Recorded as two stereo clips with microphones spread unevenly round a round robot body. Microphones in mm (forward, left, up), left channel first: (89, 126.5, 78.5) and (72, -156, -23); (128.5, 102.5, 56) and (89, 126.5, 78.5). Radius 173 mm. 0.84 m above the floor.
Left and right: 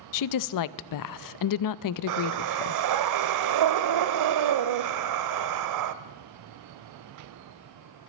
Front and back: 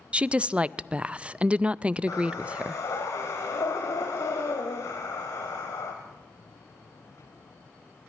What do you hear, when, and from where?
0.1 s a woman speaking: 60° left, 0.5 m
2.1 s breathing: 90° right, 0.7 m